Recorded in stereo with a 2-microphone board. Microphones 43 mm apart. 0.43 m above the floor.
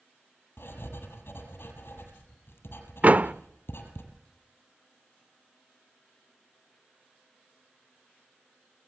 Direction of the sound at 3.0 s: 40° right (ahead or behind).